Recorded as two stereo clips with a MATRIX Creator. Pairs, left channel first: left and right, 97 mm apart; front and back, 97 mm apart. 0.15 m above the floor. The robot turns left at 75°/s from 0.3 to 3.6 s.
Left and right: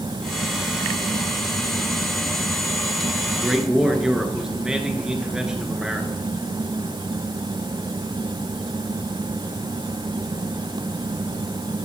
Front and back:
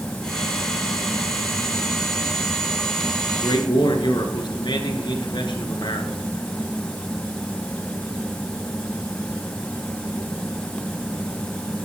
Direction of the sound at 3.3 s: 10° left.